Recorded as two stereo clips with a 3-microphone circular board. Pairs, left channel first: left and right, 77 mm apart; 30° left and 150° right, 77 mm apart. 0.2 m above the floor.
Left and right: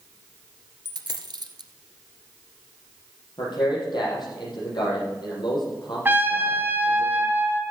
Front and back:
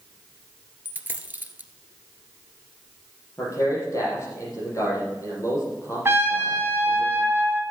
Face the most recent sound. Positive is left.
turn(degrees=-130)